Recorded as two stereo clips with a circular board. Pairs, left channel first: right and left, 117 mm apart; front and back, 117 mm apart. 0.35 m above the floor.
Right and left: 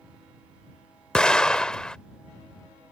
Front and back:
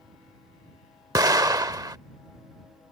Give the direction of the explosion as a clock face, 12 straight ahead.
6 o'clock.